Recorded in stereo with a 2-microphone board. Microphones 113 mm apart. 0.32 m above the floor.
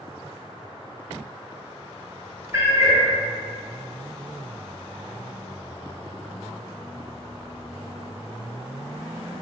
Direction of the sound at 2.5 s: 25° right (ahead or behind).